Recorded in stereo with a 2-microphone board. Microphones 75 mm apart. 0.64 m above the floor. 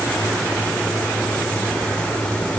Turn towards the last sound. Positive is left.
No sound to turn to.